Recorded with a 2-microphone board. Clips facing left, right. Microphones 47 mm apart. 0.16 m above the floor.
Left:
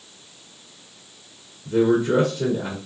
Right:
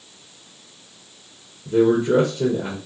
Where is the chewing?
I don't hear chewing.